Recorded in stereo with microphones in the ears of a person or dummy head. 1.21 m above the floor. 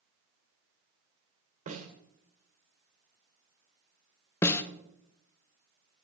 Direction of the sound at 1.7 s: 30° right (ahead or behind).